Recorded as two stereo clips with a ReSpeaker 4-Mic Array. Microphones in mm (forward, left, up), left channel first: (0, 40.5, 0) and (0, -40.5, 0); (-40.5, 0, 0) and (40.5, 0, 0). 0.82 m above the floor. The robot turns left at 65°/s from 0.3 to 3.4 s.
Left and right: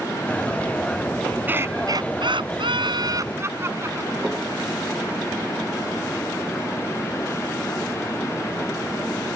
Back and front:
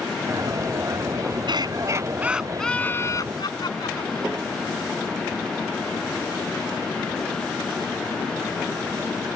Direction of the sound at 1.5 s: 20° right.